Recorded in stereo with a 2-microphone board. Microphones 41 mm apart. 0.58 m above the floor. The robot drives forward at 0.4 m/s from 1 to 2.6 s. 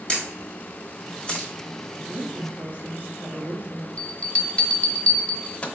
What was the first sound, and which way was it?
A camera shutter, 25° left (ahead or behind).